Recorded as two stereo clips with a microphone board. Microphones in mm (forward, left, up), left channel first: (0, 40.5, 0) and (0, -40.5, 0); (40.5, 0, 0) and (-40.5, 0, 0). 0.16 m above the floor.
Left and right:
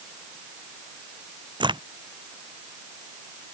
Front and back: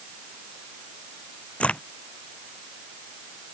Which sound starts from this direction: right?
A crack, at 1.6 s.